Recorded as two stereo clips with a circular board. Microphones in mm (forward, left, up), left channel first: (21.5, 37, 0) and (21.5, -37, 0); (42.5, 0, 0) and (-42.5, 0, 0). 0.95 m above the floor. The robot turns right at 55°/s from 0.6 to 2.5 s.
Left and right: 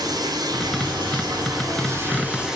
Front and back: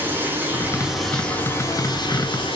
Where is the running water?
115° right, 5.5 m; by 2.6 s 10° right, 5.5 m.